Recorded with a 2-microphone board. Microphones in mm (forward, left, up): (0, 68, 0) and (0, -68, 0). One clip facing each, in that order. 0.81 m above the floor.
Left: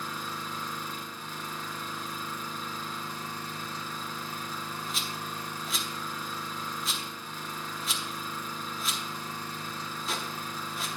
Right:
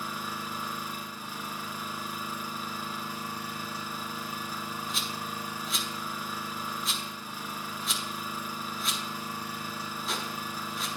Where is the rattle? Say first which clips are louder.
Right 1 dB; centre (ahead or behind), 0.9 m.